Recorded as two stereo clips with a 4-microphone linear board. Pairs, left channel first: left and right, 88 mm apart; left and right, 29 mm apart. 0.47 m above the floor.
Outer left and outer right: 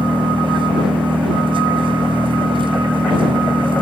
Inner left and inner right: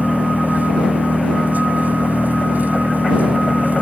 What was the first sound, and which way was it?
An engine running, 75° right (ahead or behind).